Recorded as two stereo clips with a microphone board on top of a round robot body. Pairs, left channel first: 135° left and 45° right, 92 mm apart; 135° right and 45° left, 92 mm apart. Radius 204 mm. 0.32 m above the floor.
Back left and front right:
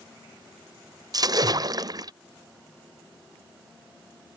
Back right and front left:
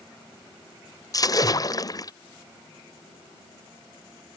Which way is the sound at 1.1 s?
90° right.